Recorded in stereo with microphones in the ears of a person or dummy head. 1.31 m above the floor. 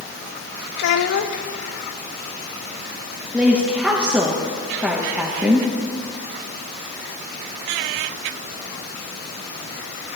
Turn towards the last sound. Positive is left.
turn(degrees=-10)  # may be behind; listen again after turning